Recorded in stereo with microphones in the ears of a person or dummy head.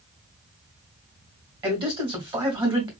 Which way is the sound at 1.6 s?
25° right (ahead or behind).